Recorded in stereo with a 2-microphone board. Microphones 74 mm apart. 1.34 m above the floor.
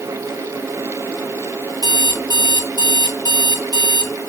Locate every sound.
1.8 s an alarm clock: 60° right (ahead or behind), 1.7 m